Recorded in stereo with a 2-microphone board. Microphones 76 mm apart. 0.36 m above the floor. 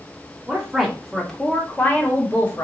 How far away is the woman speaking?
About 0.9 m.